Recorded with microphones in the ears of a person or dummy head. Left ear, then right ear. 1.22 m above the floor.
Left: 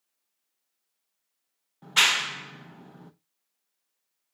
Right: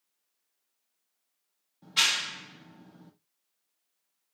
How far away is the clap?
About 0.9 m.